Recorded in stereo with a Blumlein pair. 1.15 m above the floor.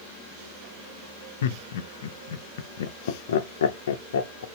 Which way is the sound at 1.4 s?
60° left.